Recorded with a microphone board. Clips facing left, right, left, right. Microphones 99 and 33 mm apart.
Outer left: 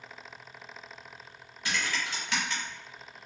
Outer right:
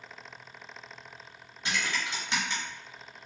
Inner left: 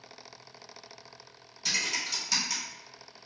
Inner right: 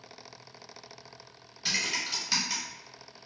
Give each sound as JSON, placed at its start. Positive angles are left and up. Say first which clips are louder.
{"t": 1.6, "sound": "typing on a keyboard", "louder": "even, even", "side_deg": -25, "distance_m": 1.1}